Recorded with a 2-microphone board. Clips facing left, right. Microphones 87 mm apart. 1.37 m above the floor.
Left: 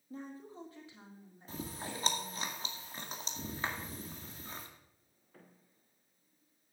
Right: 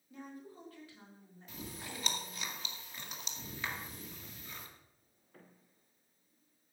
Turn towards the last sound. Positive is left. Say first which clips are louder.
# left 4 dB
turn(degrees=35)  # may be behind; listen again after turning